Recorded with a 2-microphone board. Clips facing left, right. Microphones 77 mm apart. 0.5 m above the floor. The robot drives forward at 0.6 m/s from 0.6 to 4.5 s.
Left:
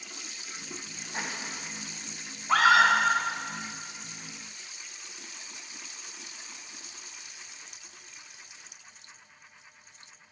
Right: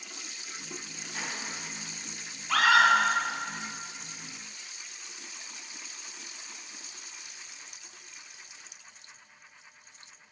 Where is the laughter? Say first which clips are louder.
Left 2 dB; 30° left (ahead or behind), 3.5 m.